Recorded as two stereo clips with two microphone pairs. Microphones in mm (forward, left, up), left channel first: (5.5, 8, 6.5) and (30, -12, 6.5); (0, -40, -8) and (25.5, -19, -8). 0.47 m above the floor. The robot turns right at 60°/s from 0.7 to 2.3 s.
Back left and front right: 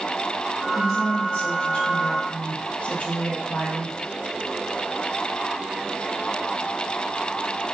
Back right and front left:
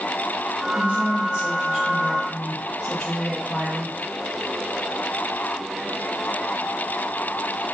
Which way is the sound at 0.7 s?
55° left.